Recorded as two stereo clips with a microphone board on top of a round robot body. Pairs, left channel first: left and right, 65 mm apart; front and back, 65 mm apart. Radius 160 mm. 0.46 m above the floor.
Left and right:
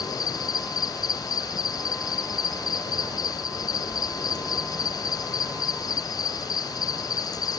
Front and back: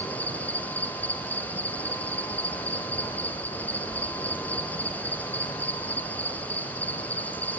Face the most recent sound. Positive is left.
turn(degrees=65)